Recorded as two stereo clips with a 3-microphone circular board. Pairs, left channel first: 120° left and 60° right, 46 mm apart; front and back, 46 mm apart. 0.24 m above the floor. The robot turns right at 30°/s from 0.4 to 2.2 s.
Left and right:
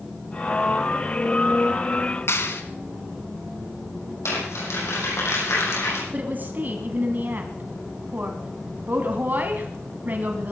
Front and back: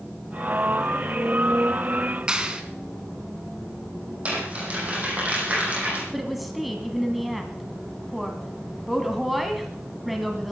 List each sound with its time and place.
2.3 s a clap: 110° left, 2 m
4.2 s crumpling: 120° left, 10 m
6.1 s a woman speaking: 90° right, 2 m